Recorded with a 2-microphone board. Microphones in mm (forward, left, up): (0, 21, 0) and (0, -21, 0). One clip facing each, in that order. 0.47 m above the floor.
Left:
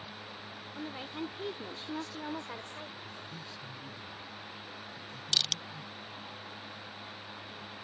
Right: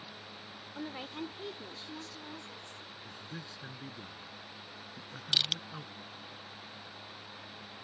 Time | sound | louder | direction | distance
0.8 | a woman speaking | left 1 dB | 15° right (ahead or behind) | ?
3.0 | a man speaking | left 1 dB | 65° right (ahead or behind) | ?
5.3 | crushing | right 1 dB | 15° right (ahead or behind) | ?